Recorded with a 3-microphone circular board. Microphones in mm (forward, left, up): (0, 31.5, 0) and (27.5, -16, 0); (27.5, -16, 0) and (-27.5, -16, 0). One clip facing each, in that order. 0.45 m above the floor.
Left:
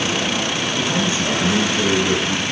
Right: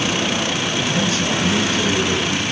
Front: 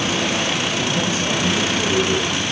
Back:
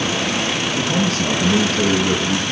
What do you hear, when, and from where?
0.8 s a man speaking: 175° right, 7 m